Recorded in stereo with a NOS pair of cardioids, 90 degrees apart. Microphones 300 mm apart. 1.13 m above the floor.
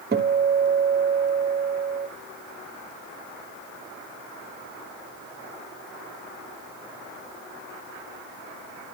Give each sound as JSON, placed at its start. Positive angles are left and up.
{"t": 0.1, "sound": "a guitar", "azimuth_deg": -30, "distance_m": 1.7}